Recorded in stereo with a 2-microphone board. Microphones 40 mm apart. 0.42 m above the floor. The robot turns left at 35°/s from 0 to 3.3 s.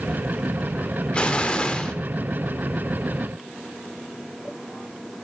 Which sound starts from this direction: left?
An explosion, at 1.1 s.